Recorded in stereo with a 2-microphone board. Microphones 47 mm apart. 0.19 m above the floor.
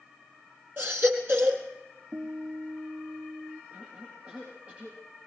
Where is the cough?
25° right (ahead or behind), 7 m.